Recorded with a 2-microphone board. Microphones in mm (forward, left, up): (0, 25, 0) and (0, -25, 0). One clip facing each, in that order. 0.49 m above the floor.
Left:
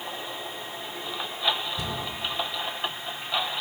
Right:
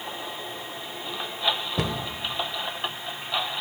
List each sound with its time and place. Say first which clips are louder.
1.8 s a cupboard door: right 4 dB; 65° right (ahead or behind), 1.1 m